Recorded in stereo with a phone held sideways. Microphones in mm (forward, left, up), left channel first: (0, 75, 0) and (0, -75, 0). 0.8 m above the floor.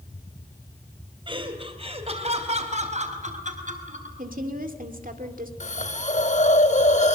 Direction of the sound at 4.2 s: 70° right (ahead or behind).